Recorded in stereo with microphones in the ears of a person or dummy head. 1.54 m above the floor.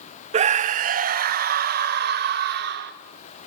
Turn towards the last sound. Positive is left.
turn(degrees=-55)  # may be behind; listen again after turning